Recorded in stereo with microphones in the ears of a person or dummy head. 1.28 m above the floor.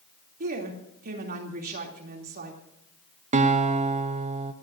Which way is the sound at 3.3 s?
40° right (ahead or behind).